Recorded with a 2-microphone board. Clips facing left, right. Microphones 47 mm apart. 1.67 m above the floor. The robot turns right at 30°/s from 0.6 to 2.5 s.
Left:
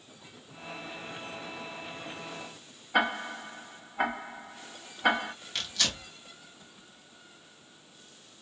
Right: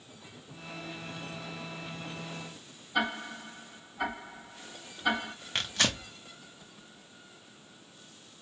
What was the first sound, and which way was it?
Ticking, 85° left.